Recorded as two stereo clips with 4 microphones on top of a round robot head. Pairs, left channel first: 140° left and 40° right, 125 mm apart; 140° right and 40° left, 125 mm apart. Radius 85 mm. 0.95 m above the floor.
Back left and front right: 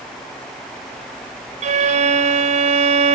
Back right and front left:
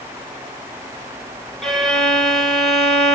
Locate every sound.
1.6 s a violin: 50° right, 1.6 m